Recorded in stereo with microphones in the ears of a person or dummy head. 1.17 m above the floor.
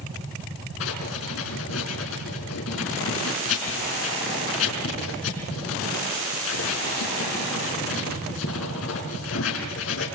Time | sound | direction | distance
0.8 | writing | 80° left | 5 m